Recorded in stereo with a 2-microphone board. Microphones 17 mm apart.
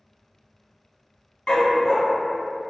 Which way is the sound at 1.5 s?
75° left (ahead or behind).